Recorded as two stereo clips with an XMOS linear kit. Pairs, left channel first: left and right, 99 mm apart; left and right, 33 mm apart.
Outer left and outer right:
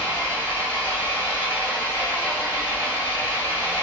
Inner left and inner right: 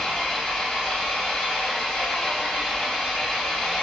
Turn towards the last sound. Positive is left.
turn(degrees=20)  # may be behind; listen again after turning